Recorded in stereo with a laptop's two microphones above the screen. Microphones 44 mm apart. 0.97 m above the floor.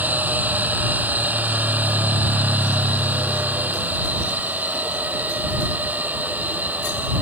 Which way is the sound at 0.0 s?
40° right (ahead or behind).